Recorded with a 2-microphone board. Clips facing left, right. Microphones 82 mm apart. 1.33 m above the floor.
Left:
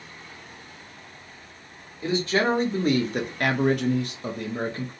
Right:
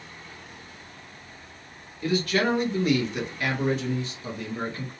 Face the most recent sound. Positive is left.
turn(degrees=35)  # may be behind; listen again after turning